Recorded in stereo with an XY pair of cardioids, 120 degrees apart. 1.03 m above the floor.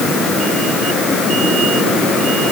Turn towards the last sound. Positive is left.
No sound to turn to.